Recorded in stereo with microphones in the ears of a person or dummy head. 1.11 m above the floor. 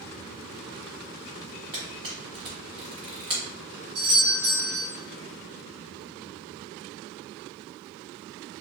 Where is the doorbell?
60° right (ahead or behind), 1.5 m.